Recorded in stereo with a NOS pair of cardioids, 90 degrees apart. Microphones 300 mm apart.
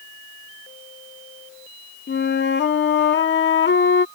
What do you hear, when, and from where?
2.1 s a flute: 35° left